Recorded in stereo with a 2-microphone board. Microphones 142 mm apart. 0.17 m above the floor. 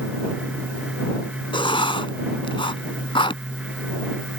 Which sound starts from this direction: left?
Writing, at 1.5 s.